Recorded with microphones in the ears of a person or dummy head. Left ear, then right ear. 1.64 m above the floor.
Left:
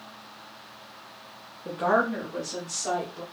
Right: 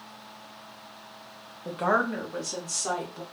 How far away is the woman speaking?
About 0.6 m.